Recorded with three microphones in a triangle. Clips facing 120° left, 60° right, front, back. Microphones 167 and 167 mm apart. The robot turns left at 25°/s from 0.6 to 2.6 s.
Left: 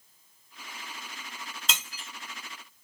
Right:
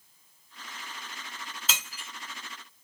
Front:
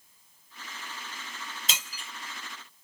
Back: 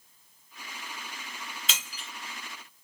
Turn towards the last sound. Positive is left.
turn(degrees=5)